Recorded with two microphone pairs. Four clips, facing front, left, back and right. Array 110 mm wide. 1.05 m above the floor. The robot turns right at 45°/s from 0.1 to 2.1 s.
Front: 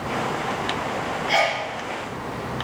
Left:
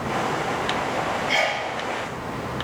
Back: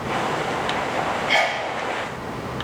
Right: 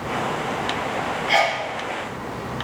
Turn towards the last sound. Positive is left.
turn(degrees=-30)